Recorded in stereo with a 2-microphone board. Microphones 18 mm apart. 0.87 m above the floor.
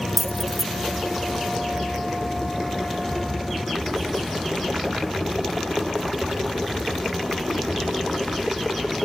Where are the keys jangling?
5° right (ahead or behind), 0.5 m.